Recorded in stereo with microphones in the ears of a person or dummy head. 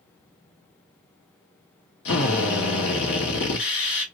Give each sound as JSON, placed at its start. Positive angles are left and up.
{"t": 2.0, "sound": "a drill", "side_deg": 70, "distance_m": 1.2}